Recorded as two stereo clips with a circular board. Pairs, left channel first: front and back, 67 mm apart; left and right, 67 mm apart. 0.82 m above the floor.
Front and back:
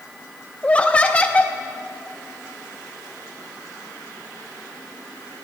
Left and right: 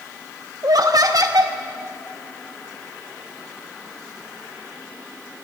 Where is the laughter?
70° right, 0.8 m.